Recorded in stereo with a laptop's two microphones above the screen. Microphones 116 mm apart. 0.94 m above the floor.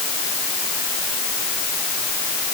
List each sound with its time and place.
Only background noise.